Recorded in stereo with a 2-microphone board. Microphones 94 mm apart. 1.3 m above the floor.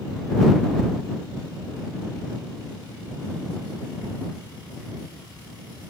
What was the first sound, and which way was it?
Only background noise.